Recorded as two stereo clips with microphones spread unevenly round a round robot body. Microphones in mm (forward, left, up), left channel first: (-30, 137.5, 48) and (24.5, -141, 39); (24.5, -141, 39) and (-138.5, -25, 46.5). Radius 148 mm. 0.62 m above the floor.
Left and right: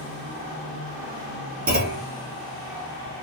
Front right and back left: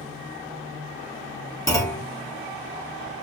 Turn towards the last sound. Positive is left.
turn(degrees=-95)